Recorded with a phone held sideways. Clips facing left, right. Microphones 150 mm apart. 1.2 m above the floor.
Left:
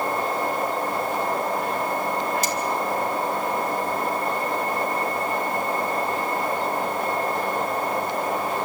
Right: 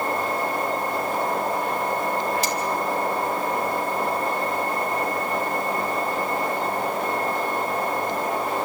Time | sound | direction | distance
2.4 | cutlery clinking | 45° left (ahead or behind) | 3 m